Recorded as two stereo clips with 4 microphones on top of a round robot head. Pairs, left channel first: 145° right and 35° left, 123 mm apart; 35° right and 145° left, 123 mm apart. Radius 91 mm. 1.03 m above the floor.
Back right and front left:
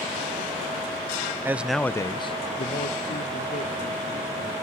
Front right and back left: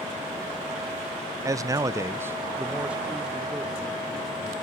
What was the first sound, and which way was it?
A man speaking, 95° left.